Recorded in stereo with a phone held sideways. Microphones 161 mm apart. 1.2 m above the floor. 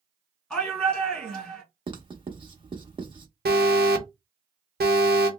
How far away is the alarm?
About 0.8 m.